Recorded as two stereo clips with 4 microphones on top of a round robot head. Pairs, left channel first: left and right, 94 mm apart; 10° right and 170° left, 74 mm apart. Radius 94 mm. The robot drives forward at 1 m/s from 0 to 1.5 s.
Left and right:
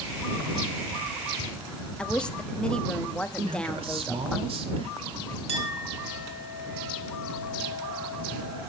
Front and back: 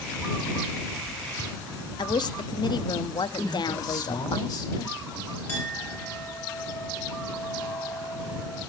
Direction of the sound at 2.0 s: 10° left.